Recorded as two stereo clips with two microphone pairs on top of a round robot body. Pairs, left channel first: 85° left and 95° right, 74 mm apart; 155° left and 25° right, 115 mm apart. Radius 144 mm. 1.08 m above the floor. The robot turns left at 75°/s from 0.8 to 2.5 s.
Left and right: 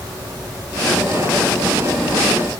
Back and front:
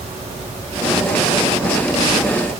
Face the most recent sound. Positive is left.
No sound to turn to.